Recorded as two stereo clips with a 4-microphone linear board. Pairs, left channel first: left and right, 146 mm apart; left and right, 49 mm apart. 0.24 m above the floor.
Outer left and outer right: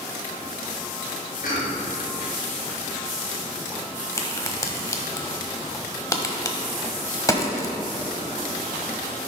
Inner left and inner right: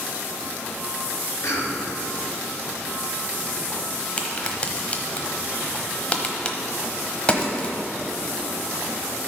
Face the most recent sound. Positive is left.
turn(degrees=25)  # may be behind; listen again after turning